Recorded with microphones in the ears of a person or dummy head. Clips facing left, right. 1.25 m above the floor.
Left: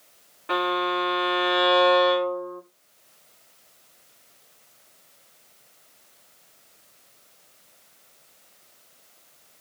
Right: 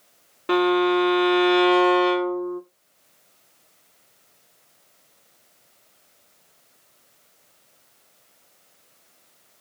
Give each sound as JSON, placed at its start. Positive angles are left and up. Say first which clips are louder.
{"t": 0.5, "sound": "a violin", "louder": "right 8 dB", "side_deg": -50, "distance_m": 0.5}